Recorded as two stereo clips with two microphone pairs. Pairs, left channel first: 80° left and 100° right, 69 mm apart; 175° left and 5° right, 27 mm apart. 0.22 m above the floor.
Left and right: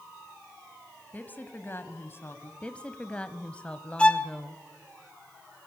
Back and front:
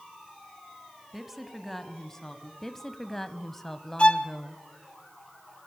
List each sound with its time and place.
1.1 s a woman speaking: 50° left, 1.5 m; by 2.5 s 115° left, 1.8 m
2.6 s a woman speaking: 115° left, 1.0 m
4.0 s a violin: 145° left, 1.2 m